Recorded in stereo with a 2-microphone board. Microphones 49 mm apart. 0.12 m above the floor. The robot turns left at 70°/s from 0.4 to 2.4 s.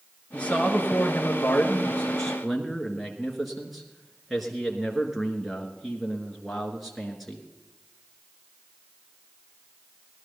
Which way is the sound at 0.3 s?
145° left.